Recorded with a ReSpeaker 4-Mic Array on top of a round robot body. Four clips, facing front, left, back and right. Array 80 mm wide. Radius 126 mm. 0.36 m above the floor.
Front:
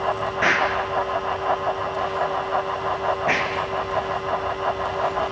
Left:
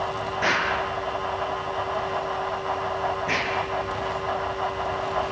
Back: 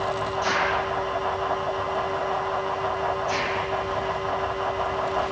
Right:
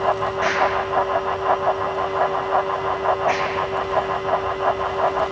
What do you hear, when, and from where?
0.4 s an explosion: 5° right, 8.5 m